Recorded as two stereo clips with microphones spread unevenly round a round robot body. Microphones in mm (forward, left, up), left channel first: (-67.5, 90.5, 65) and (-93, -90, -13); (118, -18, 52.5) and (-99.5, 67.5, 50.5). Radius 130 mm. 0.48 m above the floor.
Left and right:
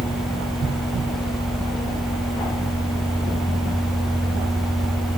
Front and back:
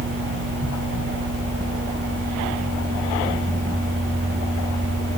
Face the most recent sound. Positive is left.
No sound to turn to.